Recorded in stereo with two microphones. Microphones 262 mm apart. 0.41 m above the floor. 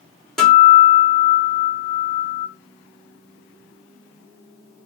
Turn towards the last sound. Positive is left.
turn(degrees=0)  # may be behind; listen again after turning